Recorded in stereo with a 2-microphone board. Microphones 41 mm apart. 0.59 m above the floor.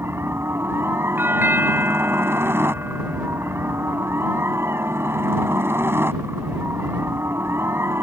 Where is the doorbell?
55° right (ahead or behind).